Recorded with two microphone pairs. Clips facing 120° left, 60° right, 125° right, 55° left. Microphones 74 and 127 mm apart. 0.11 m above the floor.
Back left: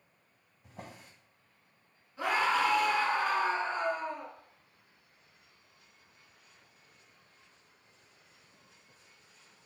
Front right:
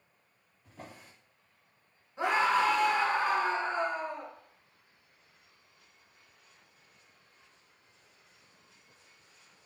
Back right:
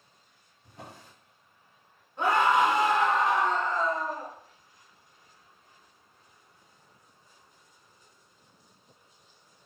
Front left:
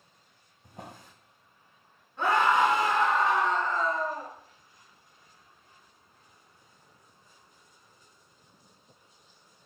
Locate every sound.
0.6 s a drawer: 100° left, 1.6 m
2.2 s a scream: 75° right, 1.2 m